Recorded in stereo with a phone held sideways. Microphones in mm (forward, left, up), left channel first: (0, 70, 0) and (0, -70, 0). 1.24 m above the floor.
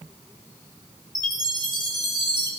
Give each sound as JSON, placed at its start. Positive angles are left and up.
{"t": 1.1, "sound": "a chime", "side_deg": -35, "distance_m": 2.5}